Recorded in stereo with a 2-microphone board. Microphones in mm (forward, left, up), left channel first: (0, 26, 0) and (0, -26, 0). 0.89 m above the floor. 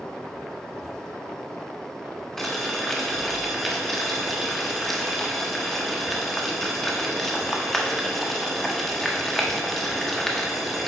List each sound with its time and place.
2.4 s boiling: 5° left (ahead or behind), 0.8 m